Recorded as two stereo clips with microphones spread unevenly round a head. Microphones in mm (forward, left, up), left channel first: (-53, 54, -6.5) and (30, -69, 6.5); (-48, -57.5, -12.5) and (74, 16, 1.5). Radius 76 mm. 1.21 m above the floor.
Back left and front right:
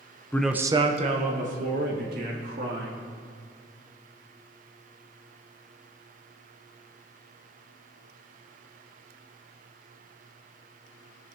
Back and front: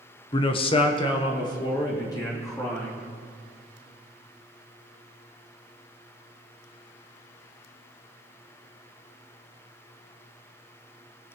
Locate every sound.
0.3 s a man speaking: 175° right, 0.7 m; by 3.0 s 85° right, 4 m